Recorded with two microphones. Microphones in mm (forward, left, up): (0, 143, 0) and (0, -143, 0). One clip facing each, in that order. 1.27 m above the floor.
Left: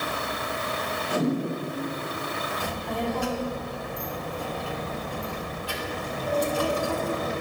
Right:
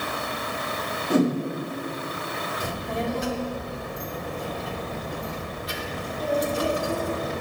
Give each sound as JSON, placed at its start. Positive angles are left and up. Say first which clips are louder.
{"t": 1.1, "sound": "a whoosh", "louder": "right 5 dB", "side_deg": -50, "distance_m": 2.0}
{"t": 2.6, "sound": "a child speaking", "louder": "right 1 dB", "side_deg": -20, "distance_m": 1.9}